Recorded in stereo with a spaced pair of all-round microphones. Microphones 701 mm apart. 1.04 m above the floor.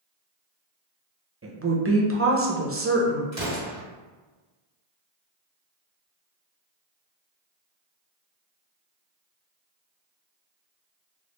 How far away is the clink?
No clink in this recording.